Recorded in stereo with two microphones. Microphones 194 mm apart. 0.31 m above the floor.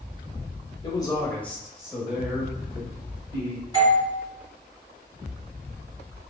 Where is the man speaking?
25° left (ahead or behind), 0.9 m; by 3.6 s 30° right (ahead or behind), 1.6 m.